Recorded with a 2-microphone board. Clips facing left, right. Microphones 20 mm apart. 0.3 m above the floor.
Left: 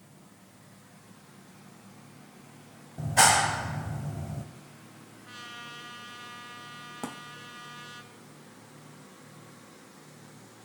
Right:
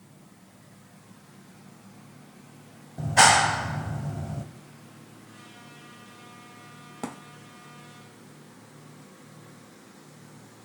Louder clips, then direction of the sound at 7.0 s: Right 3 dB; 10° right (ahead or behind).